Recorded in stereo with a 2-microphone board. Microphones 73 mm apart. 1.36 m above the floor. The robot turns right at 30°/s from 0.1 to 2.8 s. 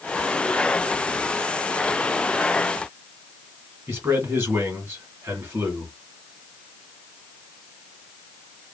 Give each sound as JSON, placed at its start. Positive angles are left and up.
{"t": 3.9, "sound": "a man speaking", "side_deg": -35, "distance_m": 1.9}